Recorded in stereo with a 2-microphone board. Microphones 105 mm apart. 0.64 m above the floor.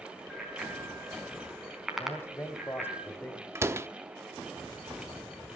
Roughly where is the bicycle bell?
Centre.